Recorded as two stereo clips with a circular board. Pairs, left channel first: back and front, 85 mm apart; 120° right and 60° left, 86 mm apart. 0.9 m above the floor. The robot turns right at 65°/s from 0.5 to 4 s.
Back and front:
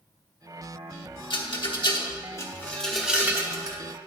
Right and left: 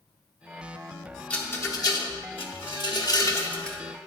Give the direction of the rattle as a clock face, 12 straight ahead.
7 o'clock.